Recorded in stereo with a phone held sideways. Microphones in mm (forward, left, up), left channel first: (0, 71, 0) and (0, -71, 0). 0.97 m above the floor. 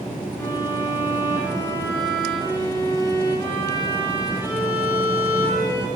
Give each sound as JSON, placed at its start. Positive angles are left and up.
{"t": 0.4, "sound": "a violin", "side_deg": 25, "distance_m": 1.7}